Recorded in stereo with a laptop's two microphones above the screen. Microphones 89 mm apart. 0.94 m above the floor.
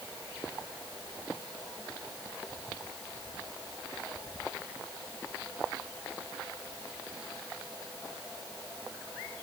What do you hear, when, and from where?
Only background noise.